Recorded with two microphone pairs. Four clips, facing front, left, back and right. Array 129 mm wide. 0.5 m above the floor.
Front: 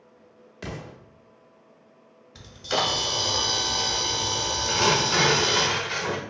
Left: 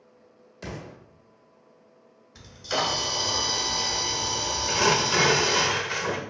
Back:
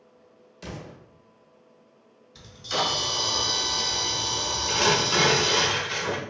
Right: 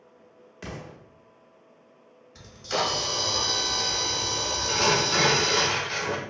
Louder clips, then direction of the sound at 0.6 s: Left 1 dB, front 2 dB; 15° right.